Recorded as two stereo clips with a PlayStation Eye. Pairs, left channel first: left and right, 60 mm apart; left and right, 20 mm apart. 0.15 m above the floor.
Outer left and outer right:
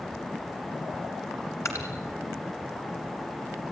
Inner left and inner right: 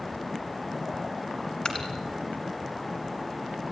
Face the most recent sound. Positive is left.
turn(degrees=50)  # may be behind; listen again after turning